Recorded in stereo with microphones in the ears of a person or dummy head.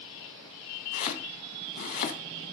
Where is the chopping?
40° left (ahead or behind), 1.4 m.